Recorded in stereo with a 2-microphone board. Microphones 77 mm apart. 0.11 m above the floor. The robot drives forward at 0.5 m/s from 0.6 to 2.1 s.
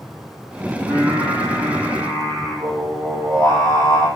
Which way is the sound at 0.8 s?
70° right (ahead or behind).